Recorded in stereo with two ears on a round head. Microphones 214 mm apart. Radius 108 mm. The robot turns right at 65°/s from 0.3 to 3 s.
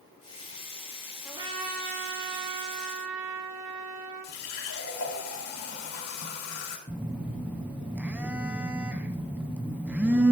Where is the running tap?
65° left (ahead or behind), 3 m.